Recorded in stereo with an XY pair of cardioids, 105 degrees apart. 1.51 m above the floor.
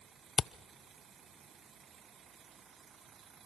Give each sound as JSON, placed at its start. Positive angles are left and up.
{"t": 0.4, "sound": "a camera shutter", "azimuth_deg": 40, "distance_m": 0.5}